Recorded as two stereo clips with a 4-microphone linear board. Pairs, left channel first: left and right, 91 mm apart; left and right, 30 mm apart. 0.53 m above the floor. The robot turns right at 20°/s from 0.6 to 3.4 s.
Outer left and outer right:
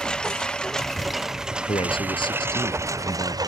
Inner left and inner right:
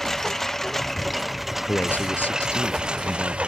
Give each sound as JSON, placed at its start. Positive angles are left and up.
{"t": 0.0, "sound": "a lawn mower", "side_deg": 10}
{"t": 1.6, "sound": "a man speaking", "azimuth_deg": 105}